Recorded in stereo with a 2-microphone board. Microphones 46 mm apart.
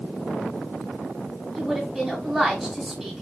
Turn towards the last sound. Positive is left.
turn(degrees=-5)  # may be behind; listen again after turning